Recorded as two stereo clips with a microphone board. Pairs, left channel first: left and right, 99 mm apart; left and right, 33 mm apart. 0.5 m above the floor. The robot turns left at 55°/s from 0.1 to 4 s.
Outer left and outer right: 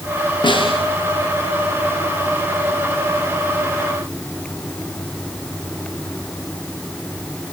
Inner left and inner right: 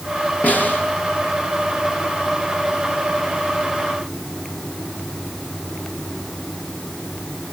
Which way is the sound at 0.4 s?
50° left (ahead or behind).